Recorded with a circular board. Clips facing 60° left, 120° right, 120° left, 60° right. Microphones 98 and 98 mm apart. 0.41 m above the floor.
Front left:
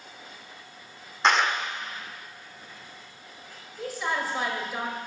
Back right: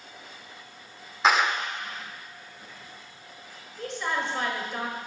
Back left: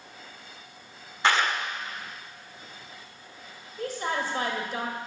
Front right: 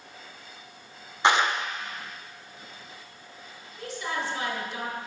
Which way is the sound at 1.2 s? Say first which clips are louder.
Even, front right 2 dB; 45° right.